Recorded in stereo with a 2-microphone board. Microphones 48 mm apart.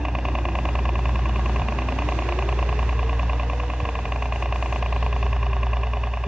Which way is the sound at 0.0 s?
15° right (ahead or behind).